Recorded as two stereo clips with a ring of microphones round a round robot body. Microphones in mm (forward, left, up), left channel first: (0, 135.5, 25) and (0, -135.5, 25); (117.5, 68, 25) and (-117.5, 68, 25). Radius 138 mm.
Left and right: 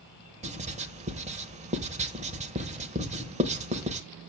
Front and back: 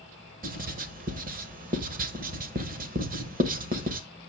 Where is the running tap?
No running tap in this recording.